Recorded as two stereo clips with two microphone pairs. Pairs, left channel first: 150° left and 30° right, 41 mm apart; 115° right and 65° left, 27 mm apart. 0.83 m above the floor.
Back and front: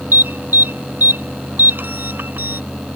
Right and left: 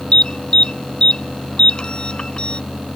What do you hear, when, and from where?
0.1 s an alarm: 65° right